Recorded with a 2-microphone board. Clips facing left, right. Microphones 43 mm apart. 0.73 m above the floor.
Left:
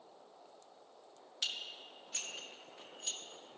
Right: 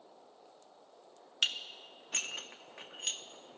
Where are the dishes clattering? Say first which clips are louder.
Right 7 dB; 60° right (ahead or behind), 0.6 m.